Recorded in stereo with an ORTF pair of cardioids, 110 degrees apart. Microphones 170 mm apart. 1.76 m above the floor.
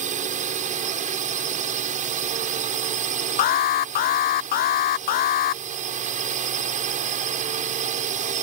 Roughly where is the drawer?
I don't hear a drawer.